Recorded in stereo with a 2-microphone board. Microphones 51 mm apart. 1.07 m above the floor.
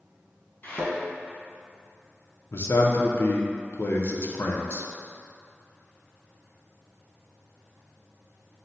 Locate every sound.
0.6 s a thud: 35° left (ahead or behind), 1.4 m
2.5 s a man speaking: 55° left (ahead or behind), 0.5 m